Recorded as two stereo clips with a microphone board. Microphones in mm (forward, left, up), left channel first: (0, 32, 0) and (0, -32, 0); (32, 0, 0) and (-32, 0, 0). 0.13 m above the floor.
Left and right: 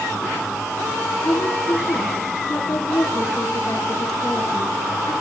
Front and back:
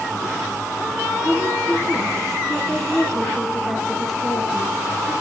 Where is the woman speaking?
110° left, 3 m.